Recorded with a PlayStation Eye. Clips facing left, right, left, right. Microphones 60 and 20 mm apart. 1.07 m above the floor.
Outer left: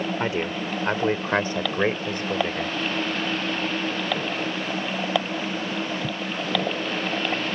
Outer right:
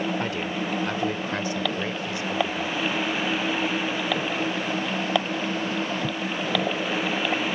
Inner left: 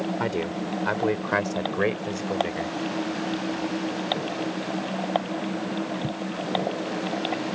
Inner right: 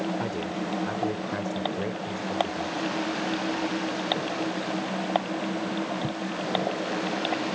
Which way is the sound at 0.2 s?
25° left (ahead or behind).